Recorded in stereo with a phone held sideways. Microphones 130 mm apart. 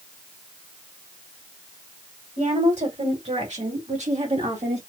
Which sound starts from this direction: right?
A woman speaking, at 2.4 s.